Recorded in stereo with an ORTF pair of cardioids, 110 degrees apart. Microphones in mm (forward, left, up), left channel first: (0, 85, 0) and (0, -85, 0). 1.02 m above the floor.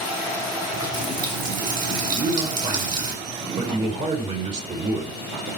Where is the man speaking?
45° right, 5 m.